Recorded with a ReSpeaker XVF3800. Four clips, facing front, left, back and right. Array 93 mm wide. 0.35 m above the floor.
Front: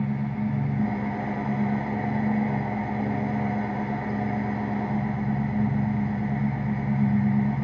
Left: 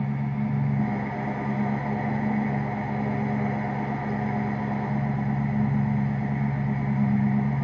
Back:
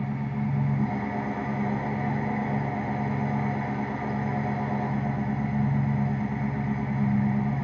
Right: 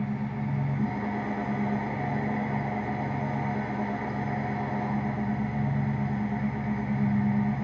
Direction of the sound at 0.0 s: 50° left.